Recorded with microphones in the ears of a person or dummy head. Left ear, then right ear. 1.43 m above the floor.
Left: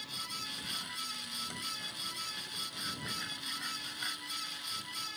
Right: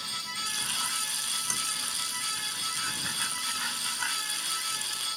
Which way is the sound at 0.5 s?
40° right (ahead or behind).